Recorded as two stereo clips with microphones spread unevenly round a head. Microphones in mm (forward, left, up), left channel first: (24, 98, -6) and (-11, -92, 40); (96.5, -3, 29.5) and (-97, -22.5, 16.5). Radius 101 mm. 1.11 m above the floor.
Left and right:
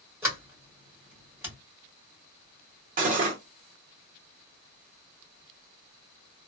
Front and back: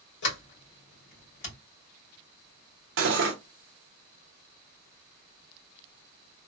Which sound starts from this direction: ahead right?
A sliding door, at 0.2 s.